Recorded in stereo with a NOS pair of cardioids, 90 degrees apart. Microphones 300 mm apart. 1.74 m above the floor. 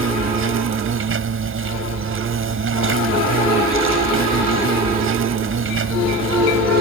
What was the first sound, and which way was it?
An insect, 45° right.